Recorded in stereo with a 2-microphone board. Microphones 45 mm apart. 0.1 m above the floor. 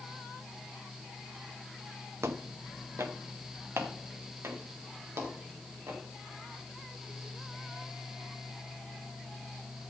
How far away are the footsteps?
About 1.2 m.